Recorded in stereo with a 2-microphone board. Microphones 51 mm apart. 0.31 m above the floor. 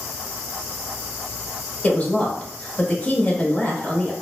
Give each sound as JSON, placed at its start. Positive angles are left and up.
{"t": 1.8, "sound": "a woman speaking", "side_deg": 25, "distance_m": 0.9}